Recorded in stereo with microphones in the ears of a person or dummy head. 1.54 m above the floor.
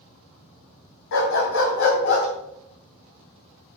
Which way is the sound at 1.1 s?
70° left (ahead or behind).